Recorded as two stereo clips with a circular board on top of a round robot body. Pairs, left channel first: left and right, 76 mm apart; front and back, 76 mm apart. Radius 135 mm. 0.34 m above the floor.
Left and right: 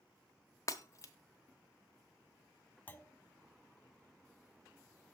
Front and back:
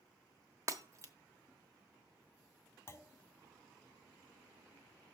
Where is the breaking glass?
135° left, 1.0 m.